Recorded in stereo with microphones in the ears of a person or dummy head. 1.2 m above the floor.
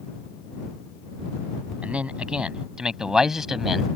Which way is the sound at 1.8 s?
10° right (ahead or behind).